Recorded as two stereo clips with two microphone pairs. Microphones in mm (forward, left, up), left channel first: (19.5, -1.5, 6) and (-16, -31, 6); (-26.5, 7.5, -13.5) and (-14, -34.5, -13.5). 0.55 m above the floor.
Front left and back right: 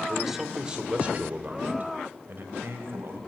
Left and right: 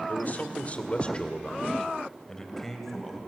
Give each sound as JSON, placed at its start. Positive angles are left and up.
{"t": 0.1, "sound": "a man speaking", "azimuth_deg": 130, "distance_m": 2.0}